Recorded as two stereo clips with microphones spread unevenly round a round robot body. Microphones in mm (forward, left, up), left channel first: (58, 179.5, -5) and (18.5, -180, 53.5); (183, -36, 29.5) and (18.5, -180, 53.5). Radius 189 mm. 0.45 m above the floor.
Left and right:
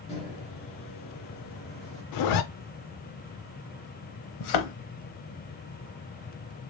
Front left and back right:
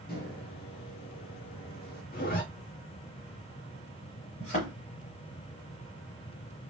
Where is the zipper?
85° left, 0.5 m.